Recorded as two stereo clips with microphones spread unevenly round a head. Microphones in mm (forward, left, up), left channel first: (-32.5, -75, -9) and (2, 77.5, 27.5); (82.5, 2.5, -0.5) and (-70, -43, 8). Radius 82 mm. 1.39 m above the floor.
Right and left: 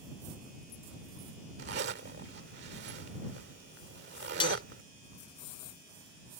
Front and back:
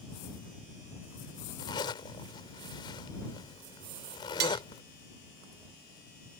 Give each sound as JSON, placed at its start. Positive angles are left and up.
{"t": 1.6, "sound": "a zipper", "azimuth_deg": 85}
{"t": 4.4, "sound": "cutlery clinking", "azimuth_deg": -170}